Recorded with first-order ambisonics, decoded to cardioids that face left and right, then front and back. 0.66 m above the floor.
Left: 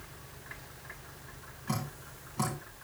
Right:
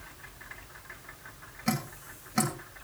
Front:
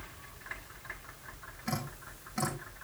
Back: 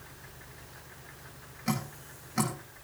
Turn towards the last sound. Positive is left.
turn(degrees=-105)